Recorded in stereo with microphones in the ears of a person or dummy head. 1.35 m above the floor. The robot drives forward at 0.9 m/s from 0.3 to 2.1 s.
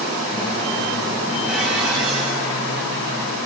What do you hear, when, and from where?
1.5 s dishes clattering: 5° right (ahead or behind), 6 m